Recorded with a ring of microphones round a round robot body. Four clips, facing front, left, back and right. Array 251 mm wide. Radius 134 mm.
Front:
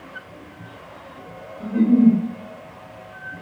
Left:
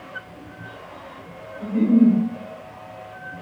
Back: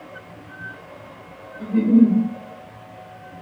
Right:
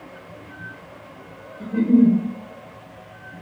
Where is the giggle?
155° right, 1.4 m.